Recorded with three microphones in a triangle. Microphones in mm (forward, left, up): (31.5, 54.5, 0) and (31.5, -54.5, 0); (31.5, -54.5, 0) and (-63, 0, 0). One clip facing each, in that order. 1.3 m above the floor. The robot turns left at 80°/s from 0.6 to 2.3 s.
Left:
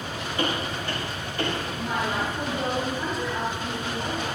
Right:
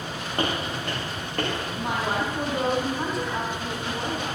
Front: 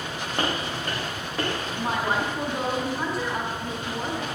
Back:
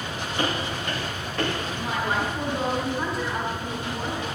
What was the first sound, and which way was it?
Footsteps, 55° right.